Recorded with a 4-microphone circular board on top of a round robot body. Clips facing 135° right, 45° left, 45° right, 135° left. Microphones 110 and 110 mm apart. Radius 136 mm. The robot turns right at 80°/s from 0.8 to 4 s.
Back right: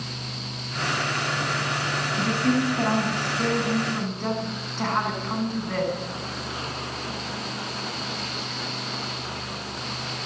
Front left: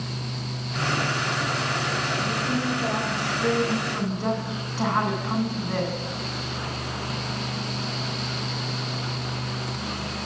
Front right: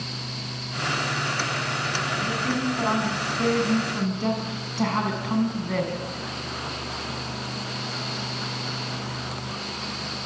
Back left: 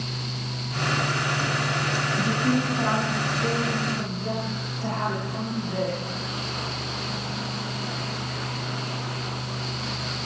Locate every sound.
2.2 s a woman speaking: 175° left, 6.5 m; by 5.9 s 35° right, 6.5 m